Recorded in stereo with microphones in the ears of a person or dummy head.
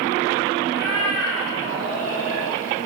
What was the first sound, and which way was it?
A cat meowing, 20° right (ahead or behind).